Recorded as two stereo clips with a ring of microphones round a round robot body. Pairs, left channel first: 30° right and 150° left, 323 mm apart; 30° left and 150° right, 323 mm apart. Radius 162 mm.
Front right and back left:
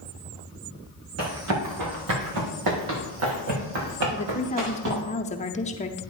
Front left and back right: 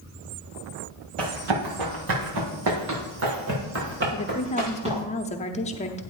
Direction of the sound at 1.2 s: 160° right.